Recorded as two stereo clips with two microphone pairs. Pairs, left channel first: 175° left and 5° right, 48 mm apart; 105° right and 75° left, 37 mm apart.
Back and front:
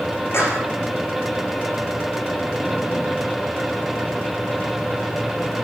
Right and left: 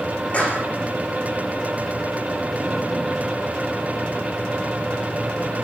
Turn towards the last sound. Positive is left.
turn(degrees=-155)